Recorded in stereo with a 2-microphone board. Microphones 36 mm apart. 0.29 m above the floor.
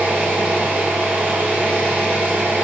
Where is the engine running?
65° right (ahead or behind), 1.3 m.